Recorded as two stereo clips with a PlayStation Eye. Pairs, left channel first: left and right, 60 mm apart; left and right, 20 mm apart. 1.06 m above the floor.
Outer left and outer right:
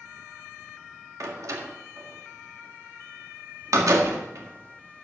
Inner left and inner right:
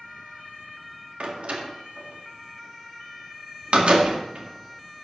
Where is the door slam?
65° right (ahead or behind), 1.6 m.